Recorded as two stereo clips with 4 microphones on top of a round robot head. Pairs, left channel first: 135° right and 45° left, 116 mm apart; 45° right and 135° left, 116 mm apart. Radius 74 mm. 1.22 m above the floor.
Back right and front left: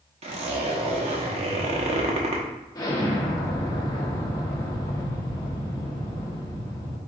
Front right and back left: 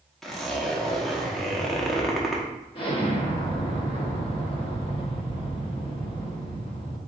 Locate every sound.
0.2 s a zipper: 40° left, 0.9 m
2.8 s an explosion: 80° right, 1.1 m